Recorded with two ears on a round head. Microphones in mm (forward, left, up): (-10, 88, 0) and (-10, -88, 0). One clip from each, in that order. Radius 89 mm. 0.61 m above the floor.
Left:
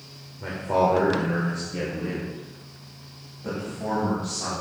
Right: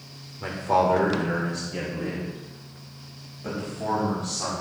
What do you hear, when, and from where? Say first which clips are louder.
0.4 s a man speaking: right 1 dB; 45° right (ahead or behind), 1.6 m; by 4.6 s 25° right (ahead or behind), 4 m